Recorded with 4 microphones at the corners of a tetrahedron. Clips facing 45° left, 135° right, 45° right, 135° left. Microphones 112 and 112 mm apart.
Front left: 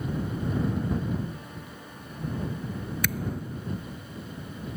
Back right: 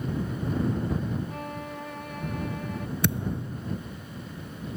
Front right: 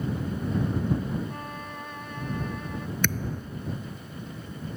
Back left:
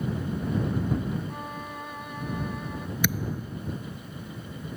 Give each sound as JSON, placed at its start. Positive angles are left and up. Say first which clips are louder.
{"t": 1.3, "sound": "a violin", "louder": "back right 6 dB, back left 1 dB", "azimuth_deg": -145}
{"t": 3.0, "sound": "a thud", "louder": "back right 4 dB, back left 2 dB", "azimuth_deg": -155}